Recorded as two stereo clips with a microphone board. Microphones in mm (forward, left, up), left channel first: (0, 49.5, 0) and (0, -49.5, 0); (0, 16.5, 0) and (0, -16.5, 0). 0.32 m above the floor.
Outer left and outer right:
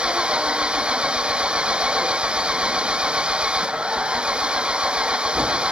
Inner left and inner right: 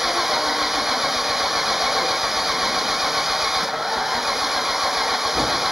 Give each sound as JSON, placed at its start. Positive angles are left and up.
{"t": 0.0, "sound": "an engine running", "side_deg": -10}